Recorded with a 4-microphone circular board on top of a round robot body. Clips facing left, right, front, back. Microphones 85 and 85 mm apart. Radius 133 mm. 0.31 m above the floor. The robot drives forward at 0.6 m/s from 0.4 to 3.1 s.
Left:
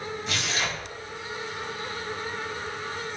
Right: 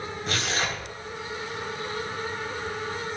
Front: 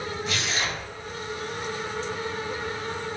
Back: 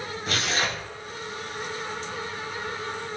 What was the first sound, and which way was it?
Tearing paper, 135° right.